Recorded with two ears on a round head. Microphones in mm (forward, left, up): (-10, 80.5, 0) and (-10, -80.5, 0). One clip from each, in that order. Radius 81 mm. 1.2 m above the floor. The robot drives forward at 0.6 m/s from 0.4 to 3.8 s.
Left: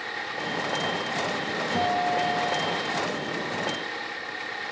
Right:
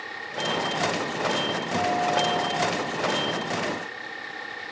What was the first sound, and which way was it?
A guitar, centre (ahead or behind).